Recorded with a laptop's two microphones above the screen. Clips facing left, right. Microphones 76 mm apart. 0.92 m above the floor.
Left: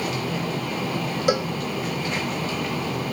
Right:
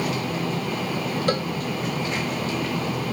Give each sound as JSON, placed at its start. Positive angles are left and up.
{"t": 1.3, "sound": "a cowbell", "side_deg": 10}